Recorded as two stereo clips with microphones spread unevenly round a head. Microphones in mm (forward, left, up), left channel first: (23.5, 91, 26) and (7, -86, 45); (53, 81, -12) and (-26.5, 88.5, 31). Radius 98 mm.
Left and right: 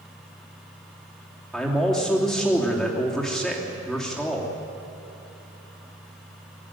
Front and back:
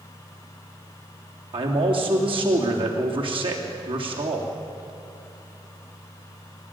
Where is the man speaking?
170° left, 3 m.